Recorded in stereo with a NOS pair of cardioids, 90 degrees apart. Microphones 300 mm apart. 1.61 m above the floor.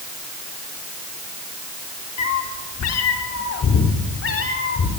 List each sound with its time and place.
2.2 s a cat meowing: 65° left, 2.5 m; by 4.9 s 45° left, 3.5 m